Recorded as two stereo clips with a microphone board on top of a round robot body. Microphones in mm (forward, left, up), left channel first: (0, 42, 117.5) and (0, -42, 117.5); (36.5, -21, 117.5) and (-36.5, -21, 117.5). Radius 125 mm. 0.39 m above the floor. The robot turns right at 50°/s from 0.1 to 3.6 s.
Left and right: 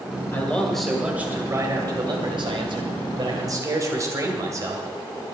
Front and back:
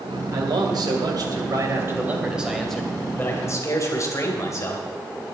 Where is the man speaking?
155° left, 3 m; by 4.8 s 40° right, 3 m.